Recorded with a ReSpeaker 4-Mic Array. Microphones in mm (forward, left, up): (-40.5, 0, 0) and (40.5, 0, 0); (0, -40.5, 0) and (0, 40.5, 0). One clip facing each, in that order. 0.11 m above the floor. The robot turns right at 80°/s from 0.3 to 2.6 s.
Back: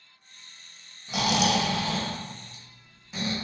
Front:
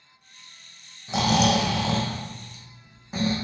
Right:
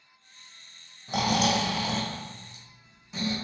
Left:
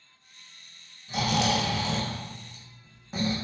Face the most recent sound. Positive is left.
turn(degrees=50)